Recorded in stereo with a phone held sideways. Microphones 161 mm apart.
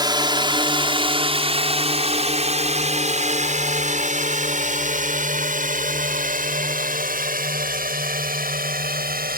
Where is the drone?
25° right (ahead or behind); by 9.4 s 65° right (ahead or behind).